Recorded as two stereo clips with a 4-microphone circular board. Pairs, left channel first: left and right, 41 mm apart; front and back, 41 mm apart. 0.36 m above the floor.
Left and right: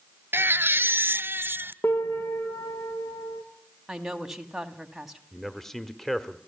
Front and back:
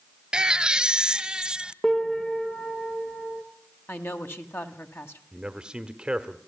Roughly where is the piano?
Left.